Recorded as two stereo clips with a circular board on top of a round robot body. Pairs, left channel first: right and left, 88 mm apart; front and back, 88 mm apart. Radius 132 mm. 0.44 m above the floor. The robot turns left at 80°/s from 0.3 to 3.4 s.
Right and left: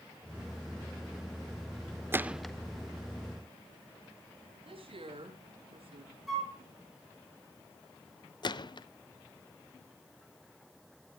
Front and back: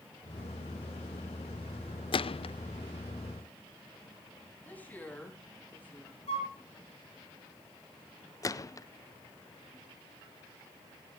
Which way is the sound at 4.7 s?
75° left.